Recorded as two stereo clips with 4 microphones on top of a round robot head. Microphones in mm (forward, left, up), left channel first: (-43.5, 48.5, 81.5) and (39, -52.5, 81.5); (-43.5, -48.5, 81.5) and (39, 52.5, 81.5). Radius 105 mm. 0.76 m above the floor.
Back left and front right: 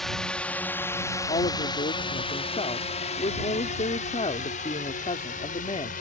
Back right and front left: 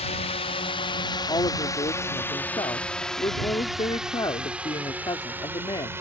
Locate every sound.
0.0 s a drone: 145° right; by 6.0 s 125° left
1.3 s a woman speaking: 170° left